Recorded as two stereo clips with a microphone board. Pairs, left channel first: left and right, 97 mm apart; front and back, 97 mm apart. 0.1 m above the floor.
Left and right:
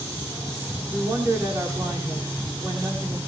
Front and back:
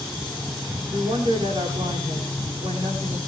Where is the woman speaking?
145° right, 9 m.